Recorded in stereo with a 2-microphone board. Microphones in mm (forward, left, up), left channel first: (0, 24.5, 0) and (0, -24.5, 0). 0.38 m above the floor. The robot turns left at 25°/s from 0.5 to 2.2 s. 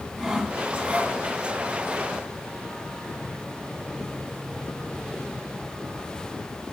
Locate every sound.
0.2 s sawing: 15° right (ahead or behind), 2.5 m; by 1.2 s 30° right (ahead or behind), 2.5 m